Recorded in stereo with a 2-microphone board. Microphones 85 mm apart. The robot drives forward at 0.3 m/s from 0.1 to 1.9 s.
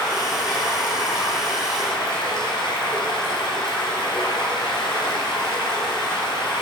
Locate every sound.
0.0 s running water: 55° left (ahead or behind), 2.5 m; by 6.6 s 70° left (ahead or behind), 2 m